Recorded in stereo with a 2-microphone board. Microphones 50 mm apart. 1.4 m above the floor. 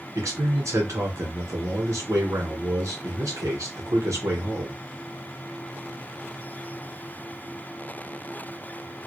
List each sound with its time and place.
0.1 s a man speaking: 80° right, 1.8 m